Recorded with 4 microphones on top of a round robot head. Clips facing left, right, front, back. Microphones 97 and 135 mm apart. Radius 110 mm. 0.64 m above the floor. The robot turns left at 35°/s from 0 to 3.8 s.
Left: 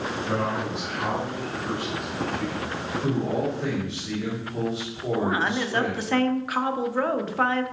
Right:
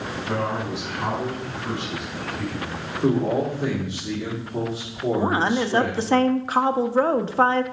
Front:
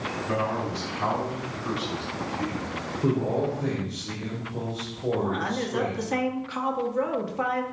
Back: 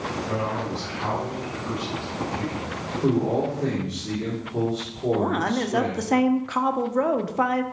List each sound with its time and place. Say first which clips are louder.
0.3 s a man speaking: right 2 dB, front 2 dB; 10° right, 5 m; by 3.5 s 120° right, 5 m
3.0 s a man speaking: right 5 dB, back 3 dB; 120° right, 3 m; by 6.2 s 150° right, 3 m
5.2 s a woman speaking: right 3 dB, back 4 dB; 145° right, 1.0 m